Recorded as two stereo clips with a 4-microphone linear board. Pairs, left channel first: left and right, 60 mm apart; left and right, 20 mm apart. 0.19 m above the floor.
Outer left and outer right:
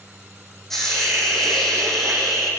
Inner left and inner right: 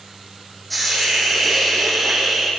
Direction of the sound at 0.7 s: 5° left (ahead or behind).